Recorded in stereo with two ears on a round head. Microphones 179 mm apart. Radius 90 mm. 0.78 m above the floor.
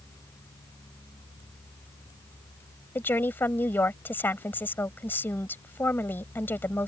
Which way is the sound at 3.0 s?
10° left (ahead or behind).